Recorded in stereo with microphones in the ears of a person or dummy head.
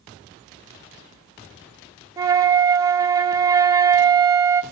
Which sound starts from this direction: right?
A flute, at 2.2 s.